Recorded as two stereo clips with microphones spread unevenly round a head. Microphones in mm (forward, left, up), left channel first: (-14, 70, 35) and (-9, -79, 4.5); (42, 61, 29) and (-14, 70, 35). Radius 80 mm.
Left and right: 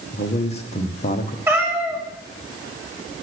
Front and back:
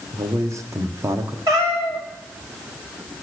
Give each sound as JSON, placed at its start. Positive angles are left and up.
{"t": 0.1, "sound": "a man speaking", "azimuth_deg": 140, "distance_m": 1.2}
{"t": 1.5, "sound": "a cat meowing", "azimuth_deg": -170, "distance_m": 2.0}